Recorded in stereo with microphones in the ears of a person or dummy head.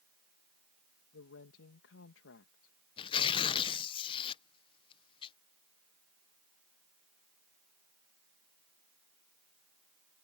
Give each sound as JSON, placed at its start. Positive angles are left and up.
{"t": 1.1, "sound": "a woman speaking", "side_deg": 85}
{"t": 3.0, "sound": "tearing paper", "side_deg": 30}